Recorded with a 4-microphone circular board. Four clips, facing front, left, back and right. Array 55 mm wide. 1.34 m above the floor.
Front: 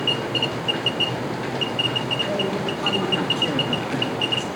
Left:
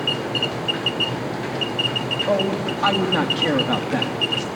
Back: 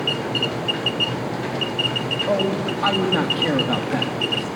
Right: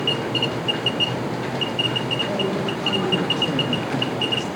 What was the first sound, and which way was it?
A man speaking, 120° left.